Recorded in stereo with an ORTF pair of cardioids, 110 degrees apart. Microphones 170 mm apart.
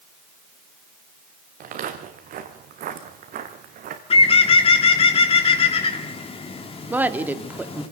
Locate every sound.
1.6 s footsteps: 60° right, 3.5 m
4.1 s a bird: 35° left, 3 m
6.9 s a woman speaking: 10° right, 2.5 m